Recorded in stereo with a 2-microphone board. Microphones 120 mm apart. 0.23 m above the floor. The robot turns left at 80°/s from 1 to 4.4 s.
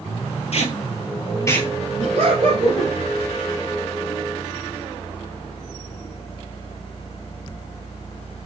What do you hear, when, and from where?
0.5 s tape being pulled: 60° left (ahead or behind), 1.1 m; by 1.7 s 5° left (ahead or behind), 1.1 m
2.0 s laughter: 85° right, 3 m; by 2.9 s 160° right, 3 m